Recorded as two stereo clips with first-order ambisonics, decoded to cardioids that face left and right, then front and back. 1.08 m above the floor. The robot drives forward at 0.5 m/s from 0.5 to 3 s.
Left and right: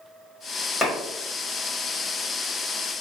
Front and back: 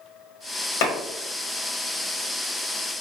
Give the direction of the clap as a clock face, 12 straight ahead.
12 o'clock.